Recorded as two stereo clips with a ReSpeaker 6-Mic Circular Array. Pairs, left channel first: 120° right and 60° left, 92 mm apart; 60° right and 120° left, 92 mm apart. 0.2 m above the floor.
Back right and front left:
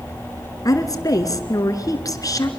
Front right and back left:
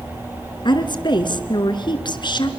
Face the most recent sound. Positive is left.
turn(degrees=-75)